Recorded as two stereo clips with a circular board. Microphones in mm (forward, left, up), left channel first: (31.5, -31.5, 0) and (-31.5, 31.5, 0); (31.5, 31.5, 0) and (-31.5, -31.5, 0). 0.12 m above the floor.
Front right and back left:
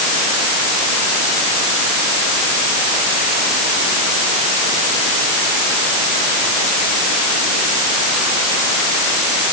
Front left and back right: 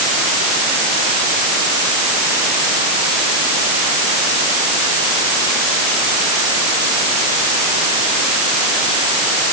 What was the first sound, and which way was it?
Only background noise.